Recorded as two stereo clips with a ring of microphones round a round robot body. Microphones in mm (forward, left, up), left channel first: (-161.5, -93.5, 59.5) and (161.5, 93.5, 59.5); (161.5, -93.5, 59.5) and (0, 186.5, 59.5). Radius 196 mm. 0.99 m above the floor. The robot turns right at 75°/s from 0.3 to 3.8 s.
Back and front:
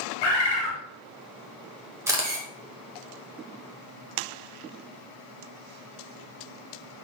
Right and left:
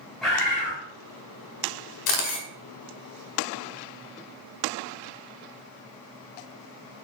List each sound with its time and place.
0.2 s a bird: 150° right, 1.3 m; by 0.8 s 115° right, 1.3 m
2.1 s a camera shutter: 55° right, 1.4 m; by 2.5 s 25° right, 1.4 m